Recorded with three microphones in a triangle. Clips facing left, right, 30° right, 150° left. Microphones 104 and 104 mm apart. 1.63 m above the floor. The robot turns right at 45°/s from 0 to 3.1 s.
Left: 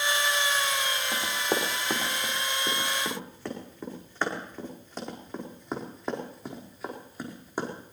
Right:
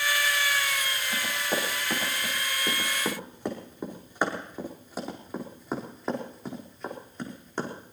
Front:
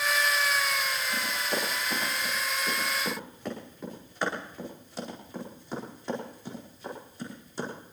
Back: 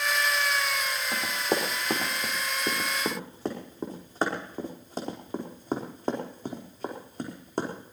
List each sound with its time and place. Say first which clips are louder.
1.1 s running footsteps: even, back 7 dB; 125° left, 5.5 m; by 7.7 s 170° left, 4.5 m